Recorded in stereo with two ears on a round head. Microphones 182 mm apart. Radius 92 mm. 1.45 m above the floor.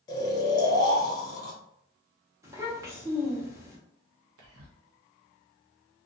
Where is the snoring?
20° left (ahead or behind), 0.6 m.